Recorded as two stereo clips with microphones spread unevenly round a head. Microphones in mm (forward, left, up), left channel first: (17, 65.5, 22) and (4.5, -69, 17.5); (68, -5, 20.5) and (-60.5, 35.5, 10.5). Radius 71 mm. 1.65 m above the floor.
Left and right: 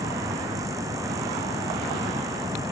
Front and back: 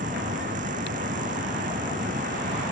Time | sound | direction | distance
0.0 | a fan | 165° right | ?